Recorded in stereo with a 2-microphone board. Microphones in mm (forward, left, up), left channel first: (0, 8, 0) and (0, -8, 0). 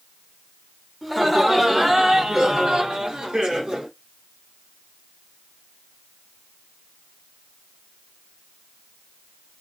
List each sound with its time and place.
1.0 s laughter: 15° right (ahead or behind), 1.3 m; by 3.9 s 65° right (ahead or behind), 1.2 m